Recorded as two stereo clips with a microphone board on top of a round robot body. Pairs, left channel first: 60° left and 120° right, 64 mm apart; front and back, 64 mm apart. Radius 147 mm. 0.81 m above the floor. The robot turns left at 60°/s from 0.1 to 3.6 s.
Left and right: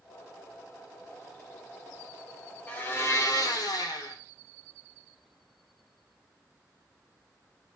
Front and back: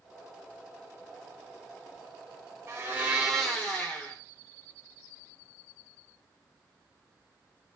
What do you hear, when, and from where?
2.7 s a blender: 130° left, 1.3 m; by 4.2 s 75° left, 1.3 m